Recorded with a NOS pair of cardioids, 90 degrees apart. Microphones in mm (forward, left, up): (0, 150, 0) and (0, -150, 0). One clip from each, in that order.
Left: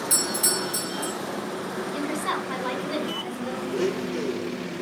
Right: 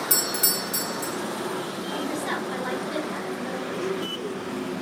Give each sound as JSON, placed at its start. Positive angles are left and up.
{"t": 0.1, "sound": "a doorbell", "azimuth_deg": -25, "distance_m": 1.5}
{"t": 1.9, "sound": "a woman speaking", "azimuth_deg": 40, "distance_m": 2.0}
{"t": 3.7, "sound": "a blender", "azimuth_deg": 65, "distance_m": 1.0}